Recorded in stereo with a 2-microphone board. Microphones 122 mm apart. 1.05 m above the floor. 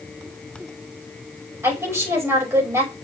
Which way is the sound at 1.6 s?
20° right (ahead or behind).